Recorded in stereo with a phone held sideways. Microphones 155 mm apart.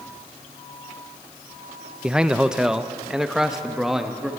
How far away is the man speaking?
About 0.6 m.